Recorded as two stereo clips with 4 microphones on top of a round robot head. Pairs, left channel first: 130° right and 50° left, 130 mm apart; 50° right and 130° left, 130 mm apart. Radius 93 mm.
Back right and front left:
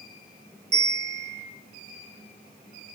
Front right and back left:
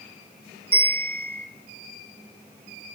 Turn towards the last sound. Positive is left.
turn(degrees=25)